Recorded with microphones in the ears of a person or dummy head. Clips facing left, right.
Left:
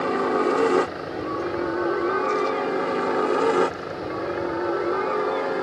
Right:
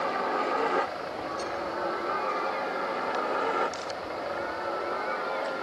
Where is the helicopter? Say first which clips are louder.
Left 8 dB; 65° left (ahead or behind); by 5.6 s 70° left (ahead or behind).